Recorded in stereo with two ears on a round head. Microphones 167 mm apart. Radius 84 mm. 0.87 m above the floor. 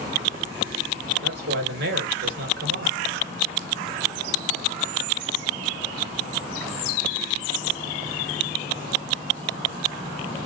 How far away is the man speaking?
About 3 m.